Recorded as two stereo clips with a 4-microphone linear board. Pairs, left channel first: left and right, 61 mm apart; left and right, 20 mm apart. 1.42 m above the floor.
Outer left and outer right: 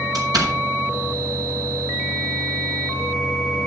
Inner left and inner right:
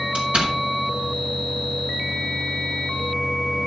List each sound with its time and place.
0.1 s a door slam: 75° right (ahead or behind), 6 m